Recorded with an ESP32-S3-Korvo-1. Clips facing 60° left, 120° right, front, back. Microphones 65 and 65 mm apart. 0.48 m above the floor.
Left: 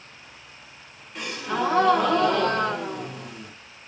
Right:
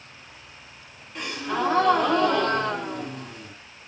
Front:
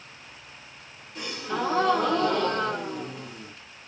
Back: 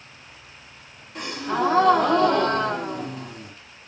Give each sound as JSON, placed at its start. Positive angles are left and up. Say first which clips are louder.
{"t": 1.1, "sound": "a gasp", "louder": "even, back 5 dB", "azimuth_deg": 150, "distance_m": 1.0}